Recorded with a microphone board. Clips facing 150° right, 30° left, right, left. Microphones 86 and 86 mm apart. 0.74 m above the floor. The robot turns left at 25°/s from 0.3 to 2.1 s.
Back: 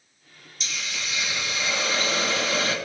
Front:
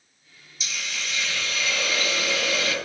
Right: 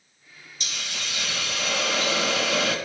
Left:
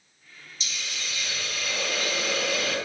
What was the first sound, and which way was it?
A hiss, 60° right.